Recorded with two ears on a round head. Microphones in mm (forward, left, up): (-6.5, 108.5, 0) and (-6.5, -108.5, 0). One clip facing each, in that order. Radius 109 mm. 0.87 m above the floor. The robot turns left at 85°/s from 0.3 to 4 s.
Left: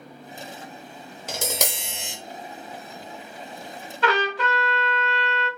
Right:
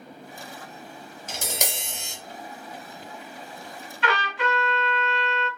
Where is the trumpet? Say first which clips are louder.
Left 4 dB; 35° left (ahead or behind), 1.3 m.